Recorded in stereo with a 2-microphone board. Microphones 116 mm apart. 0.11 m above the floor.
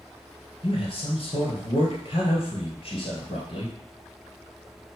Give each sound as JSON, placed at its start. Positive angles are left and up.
{"t": 0.6, "sound": "a man speaking", "side_deg": 50, "distance_m": 2.0}